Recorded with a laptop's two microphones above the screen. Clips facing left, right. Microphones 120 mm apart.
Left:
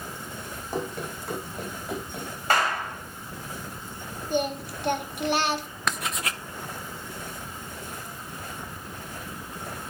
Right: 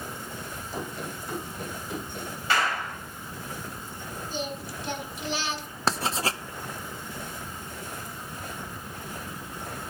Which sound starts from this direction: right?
Writing, at 5.9 s.